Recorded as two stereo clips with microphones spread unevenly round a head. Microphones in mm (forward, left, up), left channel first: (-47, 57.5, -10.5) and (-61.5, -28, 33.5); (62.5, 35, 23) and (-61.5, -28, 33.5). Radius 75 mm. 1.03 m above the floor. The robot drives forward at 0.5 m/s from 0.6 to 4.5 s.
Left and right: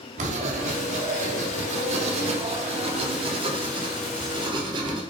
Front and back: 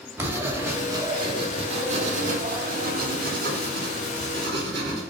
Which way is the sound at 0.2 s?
75° right.